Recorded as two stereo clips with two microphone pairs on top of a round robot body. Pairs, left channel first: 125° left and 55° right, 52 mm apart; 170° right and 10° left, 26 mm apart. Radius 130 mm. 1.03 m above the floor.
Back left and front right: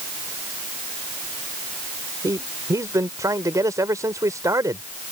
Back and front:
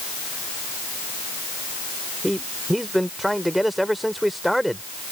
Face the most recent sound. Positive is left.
turn(degrees=-75)